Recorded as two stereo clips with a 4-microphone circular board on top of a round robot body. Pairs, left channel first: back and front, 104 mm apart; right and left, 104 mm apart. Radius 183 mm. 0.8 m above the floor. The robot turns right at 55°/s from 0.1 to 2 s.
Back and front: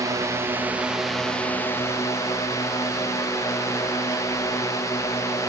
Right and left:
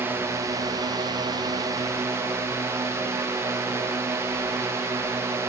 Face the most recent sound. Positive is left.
turn(degrees=140)